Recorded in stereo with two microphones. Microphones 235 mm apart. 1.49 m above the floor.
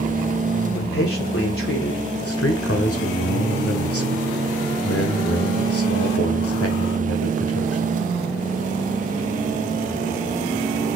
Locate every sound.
0.7 s a man speaking: 60° left (ahead or behind), 0.8 m
2.2 s a man speaking: 80° left, 1.0 m